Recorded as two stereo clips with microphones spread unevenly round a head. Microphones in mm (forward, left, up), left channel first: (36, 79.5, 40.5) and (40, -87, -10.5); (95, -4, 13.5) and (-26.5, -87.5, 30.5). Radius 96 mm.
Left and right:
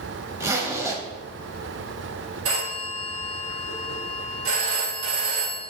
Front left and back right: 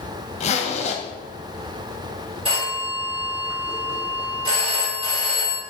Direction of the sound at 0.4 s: 10° right.